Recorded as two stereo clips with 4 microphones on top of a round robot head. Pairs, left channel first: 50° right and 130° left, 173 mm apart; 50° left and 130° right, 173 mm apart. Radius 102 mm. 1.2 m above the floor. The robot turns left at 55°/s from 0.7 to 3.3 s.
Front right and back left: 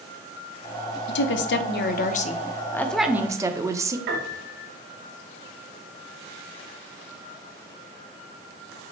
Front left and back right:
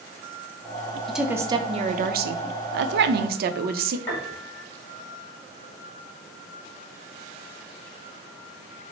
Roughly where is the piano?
Behind left.